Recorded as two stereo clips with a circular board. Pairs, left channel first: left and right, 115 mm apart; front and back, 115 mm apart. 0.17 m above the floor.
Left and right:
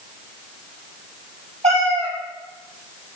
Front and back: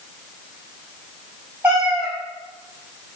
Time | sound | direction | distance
1.6 | a cat meowing | 100° right | 2.0 m